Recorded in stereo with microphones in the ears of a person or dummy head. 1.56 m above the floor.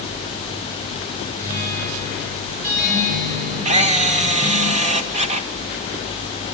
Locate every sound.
1.4 s a guitar: 45° right (ahead or behind), 7.5 m
3.6 s a camera shutter: 30° right (ahead or behind), 1.8 m